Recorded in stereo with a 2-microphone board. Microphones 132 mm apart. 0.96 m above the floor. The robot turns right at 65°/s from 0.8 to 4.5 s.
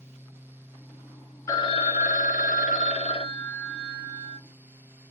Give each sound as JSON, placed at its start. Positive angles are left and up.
{"t": 1.5, "sound": "a phone ringing", "azimuth_deg": 25, "distance_m": 0.9}